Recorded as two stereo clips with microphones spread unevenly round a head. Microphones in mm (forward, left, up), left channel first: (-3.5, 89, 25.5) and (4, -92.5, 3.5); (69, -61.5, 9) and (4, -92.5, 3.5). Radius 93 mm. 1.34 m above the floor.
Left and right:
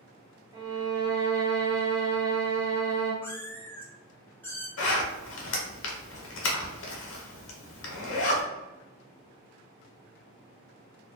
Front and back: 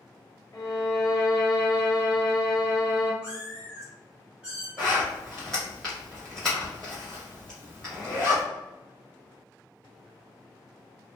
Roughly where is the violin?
Ahead.